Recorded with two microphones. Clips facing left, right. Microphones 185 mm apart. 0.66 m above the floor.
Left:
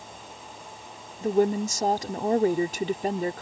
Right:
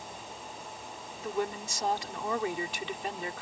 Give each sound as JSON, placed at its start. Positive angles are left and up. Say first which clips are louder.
{"t": 1.2, "sound": "a woman speaking", "louder": "left 11 dB", "side_deg": 40}